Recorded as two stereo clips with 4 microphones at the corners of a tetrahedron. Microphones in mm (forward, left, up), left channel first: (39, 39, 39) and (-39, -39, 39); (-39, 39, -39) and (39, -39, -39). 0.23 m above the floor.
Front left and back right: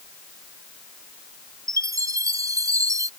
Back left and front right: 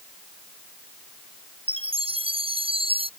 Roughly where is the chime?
Right.